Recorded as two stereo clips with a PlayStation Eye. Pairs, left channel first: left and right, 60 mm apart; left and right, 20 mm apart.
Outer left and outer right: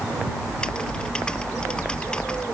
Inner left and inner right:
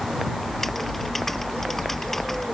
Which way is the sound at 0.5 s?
20° left (ahead or behind).